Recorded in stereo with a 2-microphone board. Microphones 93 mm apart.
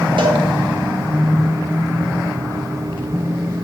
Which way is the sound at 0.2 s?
60° right (ahead or behind).